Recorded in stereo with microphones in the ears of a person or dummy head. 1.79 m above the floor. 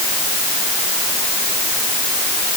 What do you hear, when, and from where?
Only background noise.